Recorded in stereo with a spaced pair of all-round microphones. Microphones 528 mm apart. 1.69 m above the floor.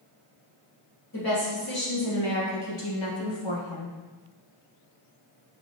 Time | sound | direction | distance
1.1 | a woman speaking | 40° left (ahead or behind) | 2.0 m